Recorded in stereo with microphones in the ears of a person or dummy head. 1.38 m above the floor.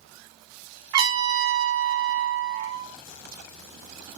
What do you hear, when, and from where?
0.9 s a trumpet: 25° right (ahead or behind), 0.8 m